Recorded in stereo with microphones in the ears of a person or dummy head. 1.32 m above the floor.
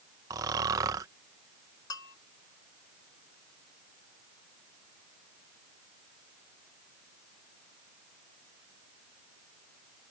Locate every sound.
0.3 s snoring: 20° right (ahead or behind)
1.9 s a bell: 20° left (ahead or behind)